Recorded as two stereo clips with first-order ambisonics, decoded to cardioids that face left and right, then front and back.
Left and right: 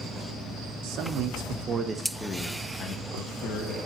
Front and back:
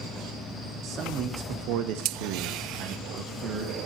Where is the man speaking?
120° right, 0.8 m; by 3.8 s 120° left, 1.0 m.